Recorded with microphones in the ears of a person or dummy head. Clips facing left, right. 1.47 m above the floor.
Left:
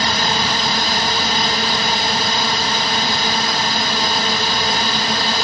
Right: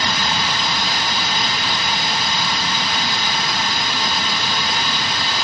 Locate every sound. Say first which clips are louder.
0.0 s a drone: left 3 dB; 35° left (ahead or behind)